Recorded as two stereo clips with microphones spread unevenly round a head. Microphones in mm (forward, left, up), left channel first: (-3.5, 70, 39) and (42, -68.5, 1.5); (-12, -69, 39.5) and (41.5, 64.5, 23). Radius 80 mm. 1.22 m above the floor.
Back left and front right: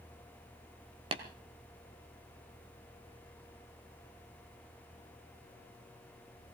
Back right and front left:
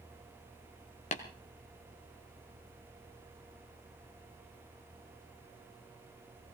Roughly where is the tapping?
Behind right.